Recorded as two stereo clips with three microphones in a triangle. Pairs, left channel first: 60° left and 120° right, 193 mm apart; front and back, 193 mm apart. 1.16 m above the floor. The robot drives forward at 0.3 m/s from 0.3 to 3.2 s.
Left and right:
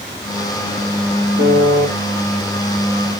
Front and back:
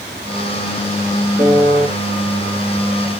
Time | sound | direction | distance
1.4 | a piano | 85° right | 3.5 m